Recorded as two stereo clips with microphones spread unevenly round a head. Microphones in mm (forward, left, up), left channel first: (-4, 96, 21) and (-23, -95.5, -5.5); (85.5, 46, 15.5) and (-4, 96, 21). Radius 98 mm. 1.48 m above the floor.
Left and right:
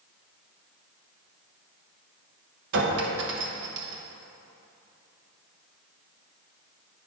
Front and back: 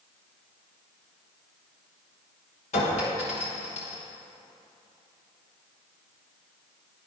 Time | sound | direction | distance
2.7 | a clink | 65° right | 0.9 m